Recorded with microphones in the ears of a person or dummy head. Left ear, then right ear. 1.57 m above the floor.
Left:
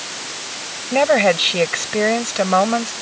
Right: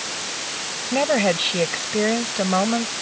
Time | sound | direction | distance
0.9 | a woman speaking | 30° left (ahead or behind) | ?